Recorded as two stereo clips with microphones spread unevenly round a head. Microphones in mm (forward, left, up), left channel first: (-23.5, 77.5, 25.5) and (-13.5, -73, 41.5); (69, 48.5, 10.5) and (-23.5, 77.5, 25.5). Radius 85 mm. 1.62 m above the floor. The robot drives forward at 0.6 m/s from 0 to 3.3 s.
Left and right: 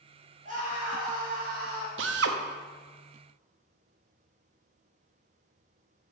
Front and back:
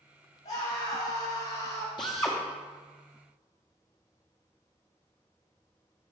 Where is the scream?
40° right, 3.5 m; by 1.9 s 50° right, 3 m.